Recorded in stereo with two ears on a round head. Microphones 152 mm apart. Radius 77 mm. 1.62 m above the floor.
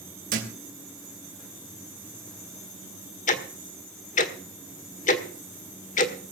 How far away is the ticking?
About 1.7 m.